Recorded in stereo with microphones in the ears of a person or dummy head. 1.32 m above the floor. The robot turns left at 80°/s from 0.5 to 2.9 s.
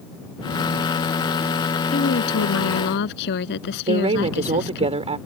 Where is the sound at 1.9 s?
140° left; by 4.9 s 60° left.